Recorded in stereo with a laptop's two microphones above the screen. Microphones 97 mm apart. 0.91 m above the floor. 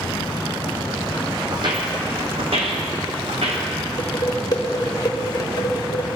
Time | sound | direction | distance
1.5 | footsteps | 45° right (ahead or behind) | 1.8 m
4.0 | dishes clattering | 40° left (ahead or behind) | 1.6 m